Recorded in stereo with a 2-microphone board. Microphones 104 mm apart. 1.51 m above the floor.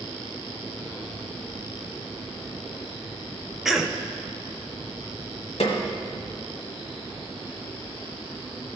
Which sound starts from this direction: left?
A snare drum, at 5.6 s.